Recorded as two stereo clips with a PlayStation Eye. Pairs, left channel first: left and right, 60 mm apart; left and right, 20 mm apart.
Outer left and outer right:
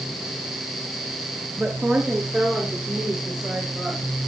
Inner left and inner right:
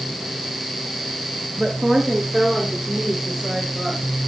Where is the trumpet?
No trumpet in this recording.